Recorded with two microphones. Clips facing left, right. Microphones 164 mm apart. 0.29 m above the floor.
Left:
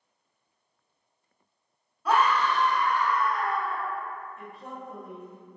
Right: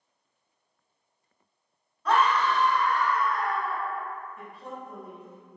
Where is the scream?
10° left (ahead or behind), 0.9 m; by 3.8 s 20° left (ahead or behind), 1.1 m.